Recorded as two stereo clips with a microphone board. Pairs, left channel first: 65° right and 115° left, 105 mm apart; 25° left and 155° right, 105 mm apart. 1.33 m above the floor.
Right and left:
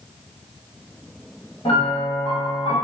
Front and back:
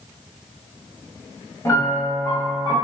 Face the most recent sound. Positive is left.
turn(degrees=-35)